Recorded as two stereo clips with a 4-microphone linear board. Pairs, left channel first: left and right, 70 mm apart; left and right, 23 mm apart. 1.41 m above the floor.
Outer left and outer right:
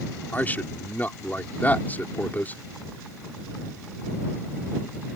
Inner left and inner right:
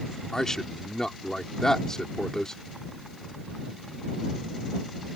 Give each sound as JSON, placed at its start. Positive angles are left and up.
{"t": 0.3, "sound": "a man speaking", "side_deg": 25}